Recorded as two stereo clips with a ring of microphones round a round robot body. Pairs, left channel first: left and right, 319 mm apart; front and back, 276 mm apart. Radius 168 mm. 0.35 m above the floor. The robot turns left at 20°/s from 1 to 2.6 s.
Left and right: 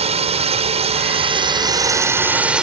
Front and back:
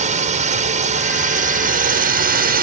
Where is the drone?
145° right; by 2.6 s 175° right.